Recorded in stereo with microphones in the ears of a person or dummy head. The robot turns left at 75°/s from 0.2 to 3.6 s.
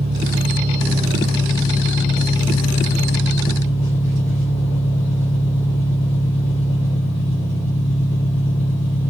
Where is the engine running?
20° right (ahead or behind), 0.8 m; by 9.1 s 5° left (ahead or behind), 0.8 m.